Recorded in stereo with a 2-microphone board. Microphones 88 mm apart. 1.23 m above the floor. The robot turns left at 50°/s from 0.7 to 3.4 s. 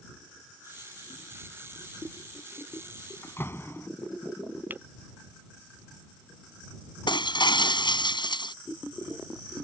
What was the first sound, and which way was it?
A door slam, 35° left (ahead or behind).